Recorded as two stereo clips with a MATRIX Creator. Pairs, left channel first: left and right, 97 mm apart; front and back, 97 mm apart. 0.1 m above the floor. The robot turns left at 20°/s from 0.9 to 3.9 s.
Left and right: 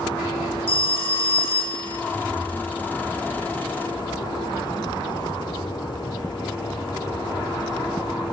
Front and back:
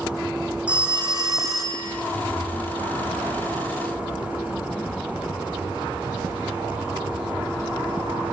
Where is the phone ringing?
105° left, 3.5 m; by 2.0 s 80° left, 3.5 m.